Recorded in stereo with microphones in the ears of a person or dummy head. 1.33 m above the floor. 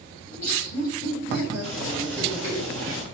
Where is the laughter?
35° left (ahead or behind), 3 m; by 2.6 s 55° left (ahead or behind), 5 m.